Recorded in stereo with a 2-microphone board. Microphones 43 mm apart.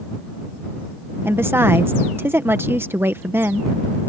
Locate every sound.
1.2 s a woman speaking: 60° right (ahead or behind)